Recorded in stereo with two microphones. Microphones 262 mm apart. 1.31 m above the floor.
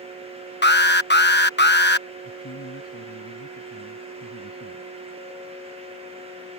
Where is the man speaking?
65° left (ahead or behind).